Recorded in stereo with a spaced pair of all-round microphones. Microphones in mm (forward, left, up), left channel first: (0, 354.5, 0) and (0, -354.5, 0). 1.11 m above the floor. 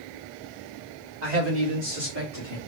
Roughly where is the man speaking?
Right.